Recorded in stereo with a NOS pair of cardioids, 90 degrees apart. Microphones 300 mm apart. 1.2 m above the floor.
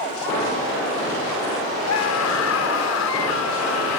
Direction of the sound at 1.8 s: 60° left.